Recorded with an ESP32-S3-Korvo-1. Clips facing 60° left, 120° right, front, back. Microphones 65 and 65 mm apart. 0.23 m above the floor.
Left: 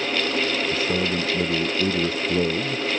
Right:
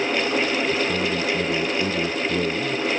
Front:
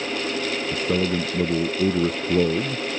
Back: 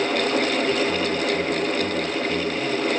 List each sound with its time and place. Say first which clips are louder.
0.7 s a man speaking: right 1 dB, back 1 dB; 15° right